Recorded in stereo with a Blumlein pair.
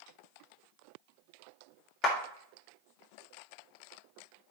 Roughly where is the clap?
Ahead left.